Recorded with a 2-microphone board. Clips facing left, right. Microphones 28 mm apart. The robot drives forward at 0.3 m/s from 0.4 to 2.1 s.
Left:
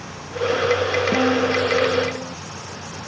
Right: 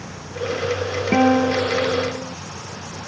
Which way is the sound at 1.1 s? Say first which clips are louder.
Right 6 dB; 65° right (ahead or behind).